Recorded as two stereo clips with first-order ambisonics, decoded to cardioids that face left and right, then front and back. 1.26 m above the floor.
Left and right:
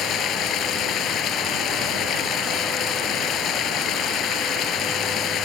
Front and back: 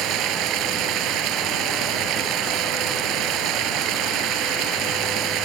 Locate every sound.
0.0 s running water: 140° left